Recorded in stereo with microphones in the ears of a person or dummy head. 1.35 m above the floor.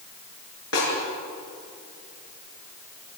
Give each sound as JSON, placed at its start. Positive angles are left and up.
{"t": 0.7, "sound": "a snare drum", "side_deg": 85, "distance_m": 8.5}